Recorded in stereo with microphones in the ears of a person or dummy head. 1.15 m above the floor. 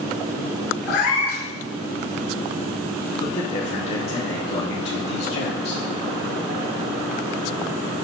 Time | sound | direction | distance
0.9 | a cat meowing | 70° left (ahead or behind) | 3 m
3.2 | a man speaking | 35° left (ahead or behind) | 3 m